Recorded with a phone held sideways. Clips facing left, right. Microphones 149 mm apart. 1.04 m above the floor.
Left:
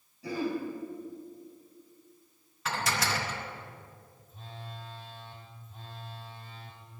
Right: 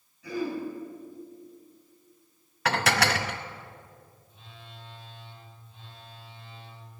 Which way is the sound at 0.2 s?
35° left (ahead or behind).